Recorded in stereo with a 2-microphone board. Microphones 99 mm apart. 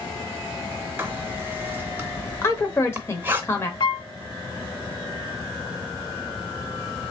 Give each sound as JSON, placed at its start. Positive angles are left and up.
{"t": 1.0, "sound": "writing", "side_deg": -20, "distance_m": 0.6}
{"t": 2.4, "sound": "a woman speaking", "side_deg": 25, "distance_m": 0.9}
{"t": 3.8, "sound": "a piano", "side_deg": 50, "distance_m": 0.6}